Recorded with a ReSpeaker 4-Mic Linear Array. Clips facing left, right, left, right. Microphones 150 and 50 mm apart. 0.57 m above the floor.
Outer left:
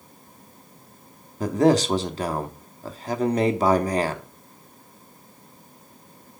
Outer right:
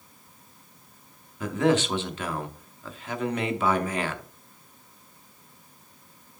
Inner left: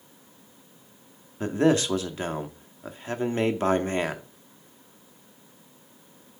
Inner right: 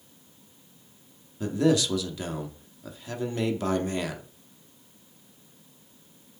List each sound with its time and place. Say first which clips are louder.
1.4 s a man speaking: outer left 4 dB, inner left 1 dB; 35° left (ahead or behind), 0.8 m